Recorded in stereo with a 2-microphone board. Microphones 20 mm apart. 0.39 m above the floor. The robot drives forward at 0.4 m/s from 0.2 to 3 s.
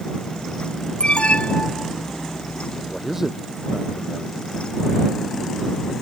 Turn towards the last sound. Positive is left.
turn(degrees=-15)  # may be behind; listen again after turning